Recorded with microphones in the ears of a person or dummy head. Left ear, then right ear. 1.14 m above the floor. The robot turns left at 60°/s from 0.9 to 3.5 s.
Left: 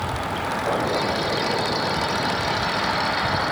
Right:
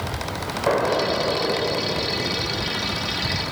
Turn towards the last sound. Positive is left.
turn(degrees=110)